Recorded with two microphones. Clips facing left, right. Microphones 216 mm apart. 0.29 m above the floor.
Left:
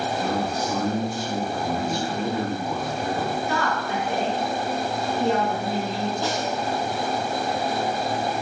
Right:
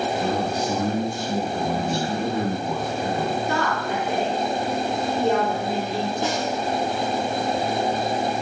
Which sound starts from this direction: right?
A woman speaking, at 3.5 s.